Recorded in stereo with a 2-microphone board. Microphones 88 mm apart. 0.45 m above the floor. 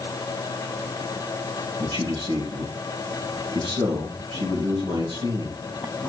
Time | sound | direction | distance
1.8 | a man speaking | 80° right | 6.5 m